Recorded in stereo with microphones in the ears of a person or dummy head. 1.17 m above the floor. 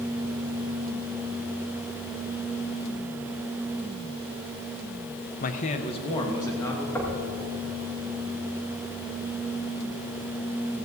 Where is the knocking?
15° left (ahead or behind), 2.5 m.